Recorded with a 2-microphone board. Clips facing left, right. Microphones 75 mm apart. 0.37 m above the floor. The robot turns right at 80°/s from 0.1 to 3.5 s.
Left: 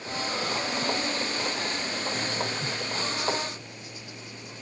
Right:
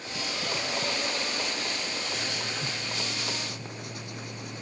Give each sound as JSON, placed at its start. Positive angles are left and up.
{"t": 2.1, "sound": "writing", "azimuth_deg": 135}